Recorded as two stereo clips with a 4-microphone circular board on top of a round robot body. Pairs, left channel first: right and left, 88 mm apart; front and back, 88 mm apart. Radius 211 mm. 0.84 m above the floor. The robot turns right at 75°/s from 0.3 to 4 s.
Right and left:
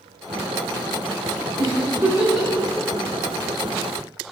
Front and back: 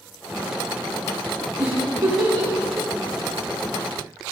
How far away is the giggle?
About 3 m.